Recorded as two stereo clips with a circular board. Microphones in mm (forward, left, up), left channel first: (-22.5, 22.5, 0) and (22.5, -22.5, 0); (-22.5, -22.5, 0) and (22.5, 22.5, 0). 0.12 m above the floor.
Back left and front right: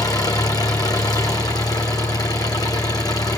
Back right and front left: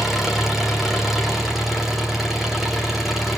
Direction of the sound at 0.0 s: 130° left.